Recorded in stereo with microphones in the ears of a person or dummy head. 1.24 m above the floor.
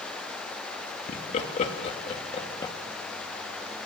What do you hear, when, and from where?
1.1 s laughter: 45° left (ahead or behind), 3 m; by 2.7 s 20° left (ahead or behind), 2.5 m